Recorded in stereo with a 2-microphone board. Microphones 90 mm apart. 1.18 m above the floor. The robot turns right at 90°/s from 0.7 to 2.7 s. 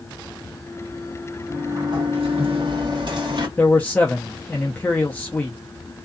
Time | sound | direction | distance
1.5 | a sliding door | 165° right | 1.1 m
3.6 | a man speaking | 15° left (ahead or behind) | 0.6 m